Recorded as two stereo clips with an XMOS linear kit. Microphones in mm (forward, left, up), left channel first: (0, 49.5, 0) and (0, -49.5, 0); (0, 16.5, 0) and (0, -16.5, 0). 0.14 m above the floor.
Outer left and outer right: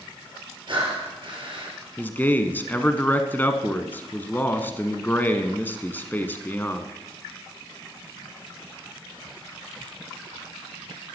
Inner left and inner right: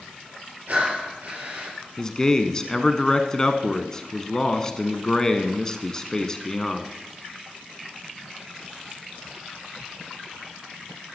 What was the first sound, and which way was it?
Breathing, 50° right (ahead or behind).